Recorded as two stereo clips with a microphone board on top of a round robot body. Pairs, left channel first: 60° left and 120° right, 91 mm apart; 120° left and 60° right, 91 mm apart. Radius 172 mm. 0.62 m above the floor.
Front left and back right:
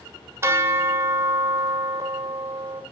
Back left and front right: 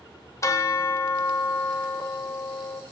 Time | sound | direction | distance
0.4 | a bell | straight behind | 1.6 m